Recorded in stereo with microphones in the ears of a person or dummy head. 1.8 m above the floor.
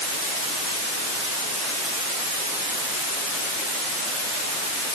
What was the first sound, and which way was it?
Only background noise.